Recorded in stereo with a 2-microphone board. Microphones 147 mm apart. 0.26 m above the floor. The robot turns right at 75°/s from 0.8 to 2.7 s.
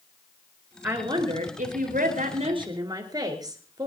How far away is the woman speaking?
About 4.5 m.